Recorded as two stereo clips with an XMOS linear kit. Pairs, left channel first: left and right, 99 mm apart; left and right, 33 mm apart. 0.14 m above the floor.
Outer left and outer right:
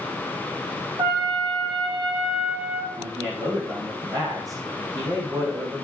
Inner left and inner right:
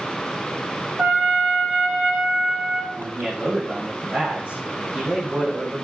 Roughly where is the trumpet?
Right.